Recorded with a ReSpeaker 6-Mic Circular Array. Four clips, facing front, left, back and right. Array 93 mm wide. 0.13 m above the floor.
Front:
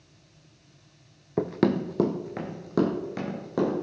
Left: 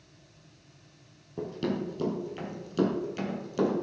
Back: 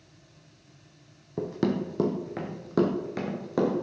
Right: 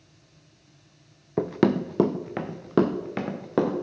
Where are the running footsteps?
55° right, 0.6 m; by 3.8 s 95° right, 2.5 m.